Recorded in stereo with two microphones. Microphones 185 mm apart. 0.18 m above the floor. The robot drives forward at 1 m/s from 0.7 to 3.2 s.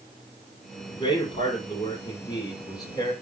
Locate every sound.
0.9 s a man speaking: 30° left (ahead or behind), 6 m; by 3.1 s 20° left (ahead or behind), 8 m